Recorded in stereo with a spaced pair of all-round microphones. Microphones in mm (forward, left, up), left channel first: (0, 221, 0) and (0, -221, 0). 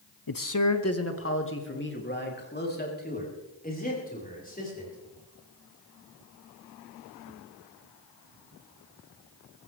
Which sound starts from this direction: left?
A man speaking, at 0.3 s.